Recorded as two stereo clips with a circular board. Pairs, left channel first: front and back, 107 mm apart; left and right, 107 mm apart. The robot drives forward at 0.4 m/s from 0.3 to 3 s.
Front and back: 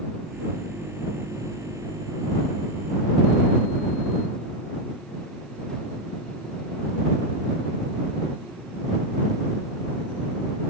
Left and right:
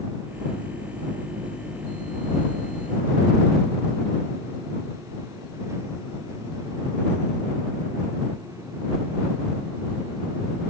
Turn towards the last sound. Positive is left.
No sound to turn to.